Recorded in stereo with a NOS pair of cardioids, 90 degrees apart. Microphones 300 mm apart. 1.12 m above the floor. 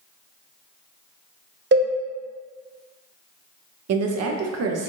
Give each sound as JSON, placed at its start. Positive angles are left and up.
{"t": 1.7, "sound": "a cowbell", "azimuth_deg": -40, "distance_m": 0.8}
{"t": 3.9, "sound": "a woman speaking", "azimuth_deg": -55, "distance_m": 0.7}